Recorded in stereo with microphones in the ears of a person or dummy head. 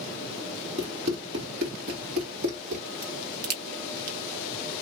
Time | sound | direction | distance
0.8 | running footsteps | 25° right (ahead or behind) | 1.8 m
3.0 | a crack | 55° right (ahead or behind) | 1.0 m